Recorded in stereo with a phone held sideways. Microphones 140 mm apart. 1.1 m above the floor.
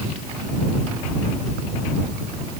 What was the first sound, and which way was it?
Only background noise.